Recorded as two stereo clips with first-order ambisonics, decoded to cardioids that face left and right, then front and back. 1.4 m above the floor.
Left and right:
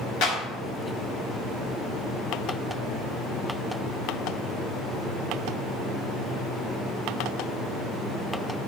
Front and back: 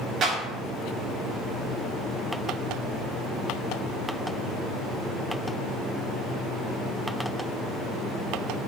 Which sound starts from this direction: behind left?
A clap, at 0.2 s.